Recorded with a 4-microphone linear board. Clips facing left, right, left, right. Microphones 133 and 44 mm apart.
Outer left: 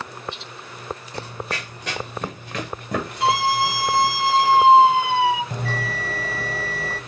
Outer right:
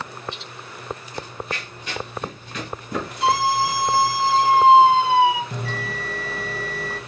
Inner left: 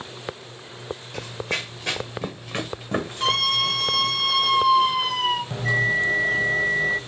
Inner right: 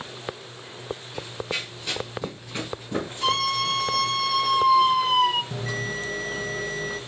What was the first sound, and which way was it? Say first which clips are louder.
Running footsteps: outer left 1 dB, inner left 3 dB; 70° left (ahead or behind).